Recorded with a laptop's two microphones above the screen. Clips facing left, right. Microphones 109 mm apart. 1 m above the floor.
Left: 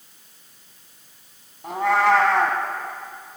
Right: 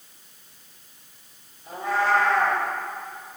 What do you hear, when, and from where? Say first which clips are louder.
1.6 s a cat meowing: left 5 dB; 75° left (ahead or behind), 3 m